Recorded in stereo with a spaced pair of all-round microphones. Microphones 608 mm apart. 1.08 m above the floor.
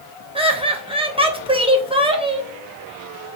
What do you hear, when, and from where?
0.3 s laughter: 10° right (ahead or behind), 1.0 m